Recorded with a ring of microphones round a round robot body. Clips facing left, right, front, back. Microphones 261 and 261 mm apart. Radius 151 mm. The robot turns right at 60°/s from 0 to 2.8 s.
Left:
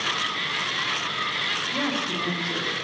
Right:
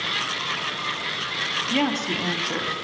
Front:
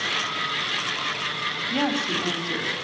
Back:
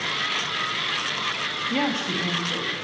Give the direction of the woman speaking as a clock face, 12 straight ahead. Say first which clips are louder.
Right 5 dB, even; 4 o'clock.